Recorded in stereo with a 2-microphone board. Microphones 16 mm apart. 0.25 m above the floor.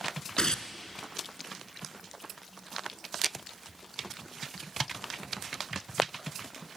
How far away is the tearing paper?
About 1.0 m.